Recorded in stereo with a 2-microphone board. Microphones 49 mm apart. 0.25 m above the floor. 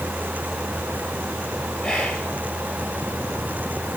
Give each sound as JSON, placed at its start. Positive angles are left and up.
{"t": 1.8, "sound": "whispering", "side_deg": 15, "distance_m": 5.0}